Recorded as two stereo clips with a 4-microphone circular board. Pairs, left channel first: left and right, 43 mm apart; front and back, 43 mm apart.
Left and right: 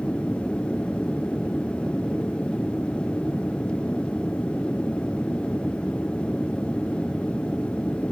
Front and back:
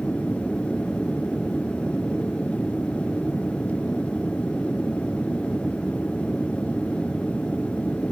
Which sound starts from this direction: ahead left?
An aircraft, at 0.0 s.